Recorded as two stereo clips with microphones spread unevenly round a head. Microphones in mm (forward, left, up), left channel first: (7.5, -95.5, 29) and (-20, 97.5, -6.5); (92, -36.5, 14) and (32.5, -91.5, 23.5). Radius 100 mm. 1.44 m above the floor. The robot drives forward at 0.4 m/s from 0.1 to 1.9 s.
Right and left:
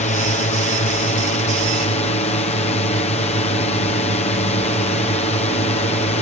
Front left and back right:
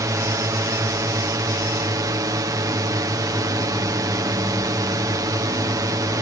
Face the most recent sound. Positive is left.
turn(degrees=-135)